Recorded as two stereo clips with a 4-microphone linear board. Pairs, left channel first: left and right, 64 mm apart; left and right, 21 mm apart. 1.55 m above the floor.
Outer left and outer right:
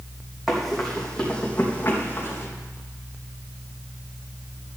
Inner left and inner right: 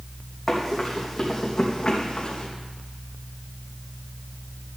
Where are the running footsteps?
Centre (ahead or behind), 3.5 m; by 2.5 s 40° left (ahead or behind), 3 m.